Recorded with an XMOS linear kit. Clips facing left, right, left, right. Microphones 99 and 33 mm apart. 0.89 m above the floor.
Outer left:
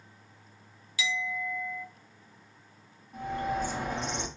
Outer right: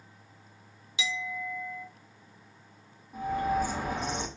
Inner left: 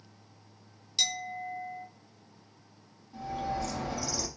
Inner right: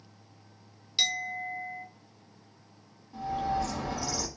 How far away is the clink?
About 0.6 m.